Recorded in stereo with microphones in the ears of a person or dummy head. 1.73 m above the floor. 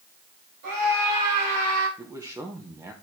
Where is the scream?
60° right (ahead or behind), 5 m; by 1.9 s 70° right (ahead or behind), 5.5 m.